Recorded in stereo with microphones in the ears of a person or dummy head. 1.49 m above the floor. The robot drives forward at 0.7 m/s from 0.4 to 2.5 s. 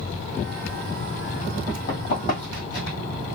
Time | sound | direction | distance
1.7 | running footsteps | 45° left (ahead or behind) | 2 m